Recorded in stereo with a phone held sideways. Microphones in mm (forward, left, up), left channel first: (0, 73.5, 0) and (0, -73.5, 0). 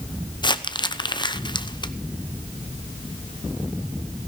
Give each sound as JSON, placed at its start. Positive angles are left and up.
{"t": 0.4, "sound": "crumpling", "side_deg": 30, "distance_m": 0.9}